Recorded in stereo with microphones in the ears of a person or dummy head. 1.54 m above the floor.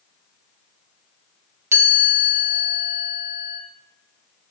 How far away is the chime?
About 2.5 m.